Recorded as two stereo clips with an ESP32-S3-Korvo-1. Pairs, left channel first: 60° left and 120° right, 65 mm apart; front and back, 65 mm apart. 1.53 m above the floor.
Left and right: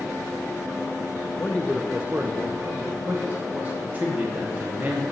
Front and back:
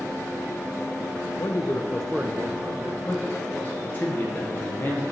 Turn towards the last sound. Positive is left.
turn(degrees=-55)